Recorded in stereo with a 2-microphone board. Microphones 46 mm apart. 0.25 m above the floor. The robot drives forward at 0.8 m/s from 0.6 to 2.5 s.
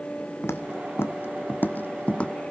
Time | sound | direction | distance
0.4 | footsteps | 80° left | 1.1 m